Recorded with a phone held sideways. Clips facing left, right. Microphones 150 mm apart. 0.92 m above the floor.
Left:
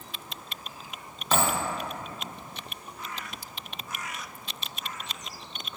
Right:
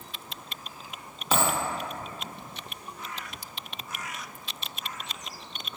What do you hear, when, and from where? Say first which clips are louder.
1.3 s a dropped coin: even; 10° right (ahead or behind), 0.7 m